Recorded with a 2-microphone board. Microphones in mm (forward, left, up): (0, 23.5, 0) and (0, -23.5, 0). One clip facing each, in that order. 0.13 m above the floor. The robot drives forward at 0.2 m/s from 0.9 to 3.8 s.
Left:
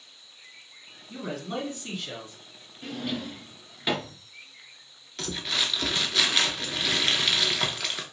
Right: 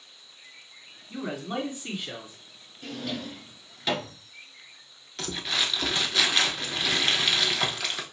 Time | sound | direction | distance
1.1 | a man speaking | 15° right (ahead or behind) | 1.7 m
2.8 | a drawer | 20° left (ahead or behind) | 0.7 m
5.2 | crumpling | centre (ahead or behind) | 0.7 m